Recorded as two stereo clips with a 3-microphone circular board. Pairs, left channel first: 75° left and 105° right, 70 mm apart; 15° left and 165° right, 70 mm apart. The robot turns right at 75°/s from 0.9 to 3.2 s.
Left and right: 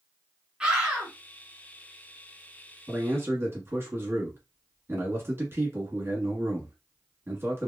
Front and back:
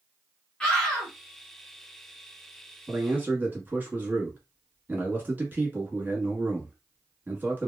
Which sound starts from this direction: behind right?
A man speaking, at 2.9 s.